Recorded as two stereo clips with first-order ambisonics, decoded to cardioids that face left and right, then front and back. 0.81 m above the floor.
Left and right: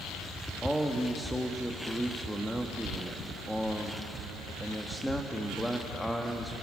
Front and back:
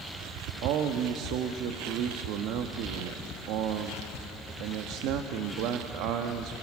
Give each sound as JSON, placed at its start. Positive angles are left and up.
{"t": 0.6, "sound": "a man speaking", "azimuth_deg": 180, "distance_m": 1.2}